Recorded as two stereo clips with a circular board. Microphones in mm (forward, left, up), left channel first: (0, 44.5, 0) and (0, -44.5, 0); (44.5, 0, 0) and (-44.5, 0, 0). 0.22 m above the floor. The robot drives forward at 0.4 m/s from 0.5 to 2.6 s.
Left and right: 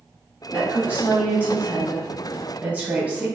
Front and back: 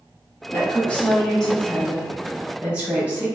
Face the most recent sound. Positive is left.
turn(degrees=-135)